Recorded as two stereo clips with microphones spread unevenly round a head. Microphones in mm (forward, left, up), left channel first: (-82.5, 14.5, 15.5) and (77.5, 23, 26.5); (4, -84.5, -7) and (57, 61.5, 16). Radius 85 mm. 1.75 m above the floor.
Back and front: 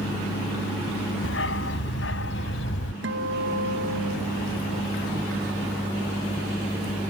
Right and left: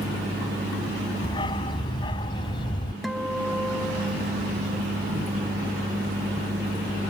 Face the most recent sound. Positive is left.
turn(degrees=-15)